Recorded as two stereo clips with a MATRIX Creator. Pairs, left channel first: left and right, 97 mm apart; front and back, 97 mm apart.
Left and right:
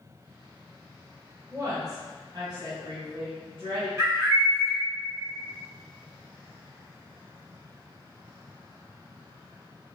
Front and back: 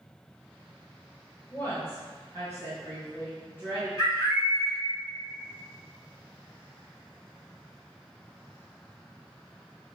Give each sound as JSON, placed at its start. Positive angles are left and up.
{"t": 1.5, "sound": "a woman speaking", "azimuth_deg": -45, "distance_m": 1.0}
{"t": 4.0, "sound": "a bird", "azimuth_deg": -35, "distance_m": 2.0}